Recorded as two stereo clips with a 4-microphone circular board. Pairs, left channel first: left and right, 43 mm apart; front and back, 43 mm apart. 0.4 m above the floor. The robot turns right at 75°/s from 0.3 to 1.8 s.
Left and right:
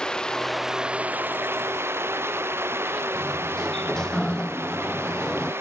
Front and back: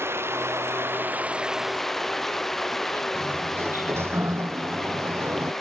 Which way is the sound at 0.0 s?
165° left.